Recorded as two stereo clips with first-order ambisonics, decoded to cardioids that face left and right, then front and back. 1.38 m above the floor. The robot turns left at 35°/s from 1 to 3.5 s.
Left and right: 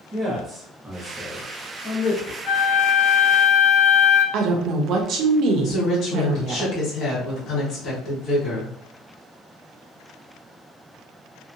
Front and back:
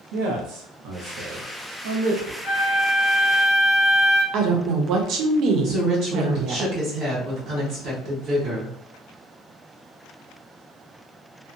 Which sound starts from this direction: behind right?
A woman speaking, at 4.3 s.